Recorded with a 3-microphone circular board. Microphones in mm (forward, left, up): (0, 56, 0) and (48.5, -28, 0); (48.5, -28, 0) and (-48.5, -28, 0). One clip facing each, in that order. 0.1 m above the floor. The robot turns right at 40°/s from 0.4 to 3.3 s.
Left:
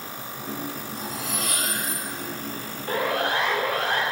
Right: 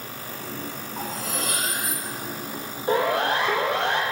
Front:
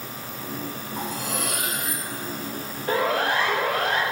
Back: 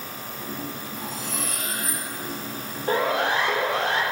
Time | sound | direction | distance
1.0 | cutlery clinking | 20° right | 2.5 m
2.9 | a siren | 125° right | 3.5 m